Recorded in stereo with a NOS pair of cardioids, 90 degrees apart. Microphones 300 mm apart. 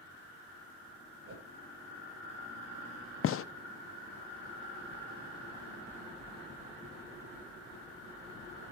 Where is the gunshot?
50° left, 0.6 m.